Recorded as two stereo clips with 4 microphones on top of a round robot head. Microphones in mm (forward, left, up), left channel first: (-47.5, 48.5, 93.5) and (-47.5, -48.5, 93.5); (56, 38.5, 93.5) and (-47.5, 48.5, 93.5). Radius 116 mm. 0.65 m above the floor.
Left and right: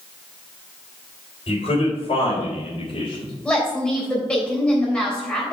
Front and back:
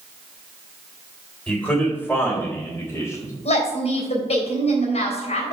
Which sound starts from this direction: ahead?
A woman speaking, at 3.5 s.